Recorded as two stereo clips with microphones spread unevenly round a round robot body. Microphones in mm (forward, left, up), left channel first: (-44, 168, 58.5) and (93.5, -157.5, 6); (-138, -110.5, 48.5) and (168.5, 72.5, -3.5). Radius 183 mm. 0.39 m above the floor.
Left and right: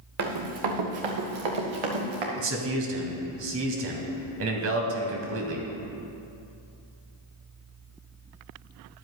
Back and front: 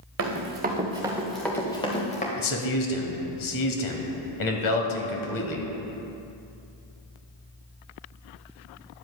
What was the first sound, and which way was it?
Running footsteps, 20° right.